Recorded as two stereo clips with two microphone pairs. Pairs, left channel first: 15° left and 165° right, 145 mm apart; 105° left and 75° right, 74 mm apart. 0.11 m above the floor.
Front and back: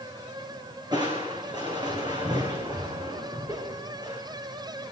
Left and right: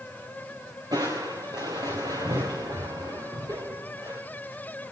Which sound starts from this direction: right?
Crushing, at 0.9 s.